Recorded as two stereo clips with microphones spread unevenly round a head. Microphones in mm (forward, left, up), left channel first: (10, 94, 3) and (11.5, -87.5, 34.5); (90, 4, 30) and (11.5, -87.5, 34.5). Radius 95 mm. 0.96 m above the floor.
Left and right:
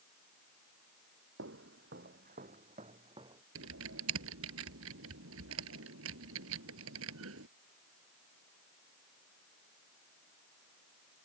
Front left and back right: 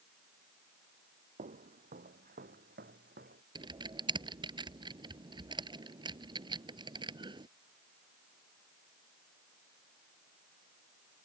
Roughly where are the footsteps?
Right.